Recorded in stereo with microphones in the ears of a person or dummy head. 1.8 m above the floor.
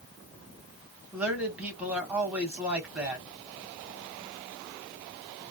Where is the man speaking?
5° right (ahead or behind), 1.2 m.